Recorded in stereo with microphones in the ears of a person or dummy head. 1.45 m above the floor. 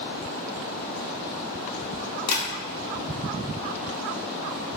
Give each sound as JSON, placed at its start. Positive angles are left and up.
{"t": 2.3, "sound": "tapping", "side_deg": 20, "distance_m": 1.0}